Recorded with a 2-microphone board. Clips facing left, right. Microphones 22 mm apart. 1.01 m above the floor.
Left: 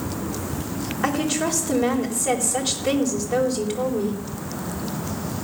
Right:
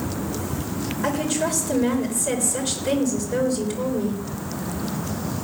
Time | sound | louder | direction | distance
1.0 | a woman speaking | left 1 dB | 30° left (ahead or behind) | 3.5 m